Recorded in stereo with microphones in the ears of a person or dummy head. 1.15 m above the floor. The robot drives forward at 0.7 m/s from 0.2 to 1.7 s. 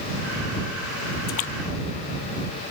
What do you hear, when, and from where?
1.3 s a splash: 45° left (ahead or behind); by 1.5 s 35° left (ahead or behind)